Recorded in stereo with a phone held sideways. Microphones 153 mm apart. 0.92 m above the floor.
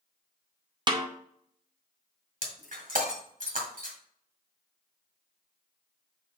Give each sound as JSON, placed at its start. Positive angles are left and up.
{"t": 0.9, "sound": "a snare drum", "side_deg": -30, "distance_m": 0.8}
{"t": 2.4, "sound": "breaking glass", "side_deg": -65, "distance_m": 1.8}